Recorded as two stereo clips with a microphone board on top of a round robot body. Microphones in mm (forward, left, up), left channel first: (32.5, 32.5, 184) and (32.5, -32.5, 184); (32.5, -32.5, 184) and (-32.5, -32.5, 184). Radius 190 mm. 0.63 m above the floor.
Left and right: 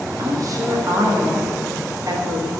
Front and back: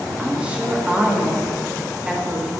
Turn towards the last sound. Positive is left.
turn(degrees=-105)